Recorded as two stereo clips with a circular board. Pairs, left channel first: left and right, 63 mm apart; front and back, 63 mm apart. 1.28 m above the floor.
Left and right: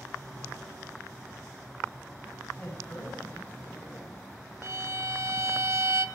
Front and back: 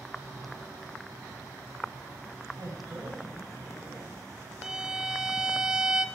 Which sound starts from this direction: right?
A violin, at 4.6 s.